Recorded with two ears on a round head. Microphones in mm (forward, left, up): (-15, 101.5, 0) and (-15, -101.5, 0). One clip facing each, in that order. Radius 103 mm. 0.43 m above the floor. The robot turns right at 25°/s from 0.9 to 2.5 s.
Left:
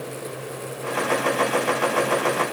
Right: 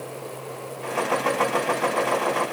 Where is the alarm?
No alarm in this recording.